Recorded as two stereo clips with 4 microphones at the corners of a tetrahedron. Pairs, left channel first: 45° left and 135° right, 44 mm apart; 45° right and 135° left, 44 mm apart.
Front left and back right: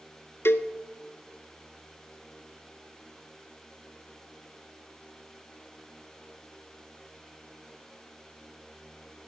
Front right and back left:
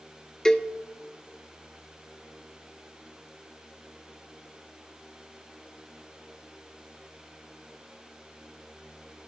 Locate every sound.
0.5 s a cowbell: 30° left, 0.5 m